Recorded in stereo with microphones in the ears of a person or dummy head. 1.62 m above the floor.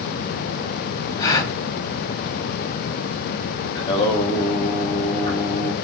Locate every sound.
1.2 s a gasp: 20° left (ahead or behind), 0.8 m
3.8 s singing: 25° left (ahead or behind), 0.8 m